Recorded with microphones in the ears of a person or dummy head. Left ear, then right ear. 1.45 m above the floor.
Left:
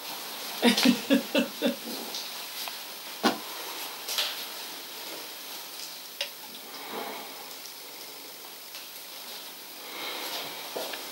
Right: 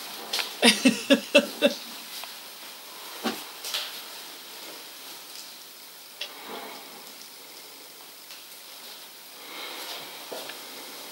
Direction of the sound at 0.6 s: 35° right (ahead or behind).